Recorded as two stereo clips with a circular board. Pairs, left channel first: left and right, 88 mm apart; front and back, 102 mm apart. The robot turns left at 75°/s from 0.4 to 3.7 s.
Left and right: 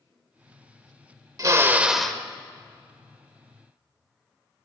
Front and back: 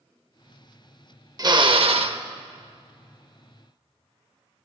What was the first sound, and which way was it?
A drill, 135° right.